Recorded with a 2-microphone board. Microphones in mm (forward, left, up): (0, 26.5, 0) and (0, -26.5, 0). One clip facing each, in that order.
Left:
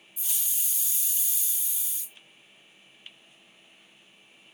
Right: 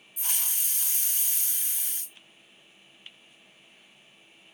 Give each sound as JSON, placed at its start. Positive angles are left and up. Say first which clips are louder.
{"t": 0.2, "sound": "a hiss", "louder": "right 4 dB", "side_deg": -55}